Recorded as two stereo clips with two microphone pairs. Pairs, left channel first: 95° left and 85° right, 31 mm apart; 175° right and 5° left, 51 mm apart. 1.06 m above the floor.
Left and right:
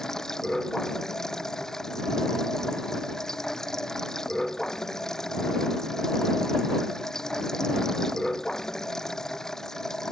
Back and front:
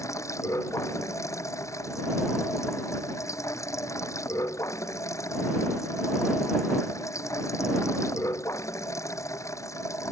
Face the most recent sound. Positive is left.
turn(degrees=170)